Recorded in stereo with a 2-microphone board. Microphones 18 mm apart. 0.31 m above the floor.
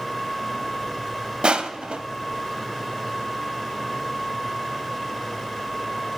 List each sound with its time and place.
1.4 s crushing: 60° right (ahead or behind), 0.5 m